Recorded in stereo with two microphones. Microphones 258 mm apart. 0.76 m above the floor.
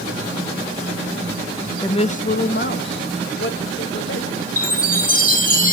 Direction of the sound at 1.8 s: 15° left (ahead or behind).